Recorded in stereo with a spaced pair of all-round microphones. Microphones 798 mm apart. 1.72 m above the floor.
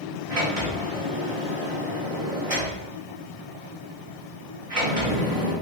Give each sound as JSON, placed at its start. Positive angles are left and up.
{"t": 0.3, "sound": "a sliding door", "side_deg": -45, "distance_m": 1.2}